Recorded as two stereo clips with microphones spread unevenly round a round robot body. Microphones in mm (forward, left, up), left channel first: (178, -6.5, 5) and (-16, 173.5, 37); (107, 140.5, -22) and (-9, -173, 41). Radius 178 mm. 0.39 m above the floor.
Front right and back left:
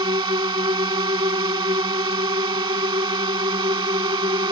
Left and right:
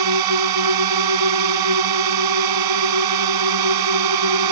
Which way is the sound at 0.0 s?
145° right.